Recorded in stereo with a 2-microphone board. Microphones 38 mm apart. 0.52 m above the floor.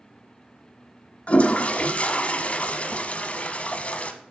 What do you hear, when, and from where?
1.3 s a toilet flushing: 40° left (ahead or behind), 1.0 m